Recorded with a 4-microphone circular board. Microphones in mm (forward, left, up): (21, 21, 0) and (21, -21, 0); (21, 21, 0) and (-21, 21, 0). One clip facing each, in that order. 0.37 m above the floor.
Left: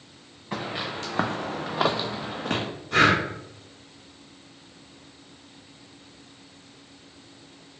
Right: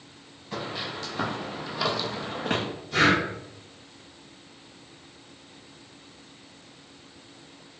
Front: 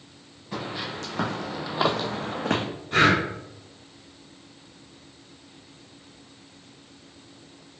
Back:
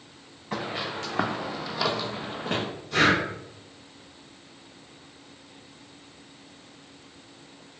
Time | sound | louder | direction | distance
0.5 | footsteps | left 2 dB, back 1 dB | 130° left | 1.8 m
2.9 | breathing | left 2 dB, front 2 dB | 55° left | 1.3 m